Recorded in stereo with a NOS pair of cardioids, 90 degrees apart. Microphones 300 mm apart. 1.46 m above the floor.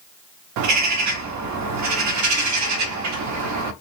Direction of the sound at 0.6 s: 65° right.